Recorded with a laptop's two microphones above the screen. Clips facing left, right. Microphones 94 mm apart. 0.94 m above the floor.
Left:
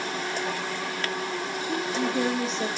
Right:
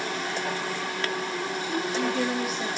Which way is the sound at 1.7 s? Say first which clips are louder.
Left 1 dB; 30° left (ahead or behind).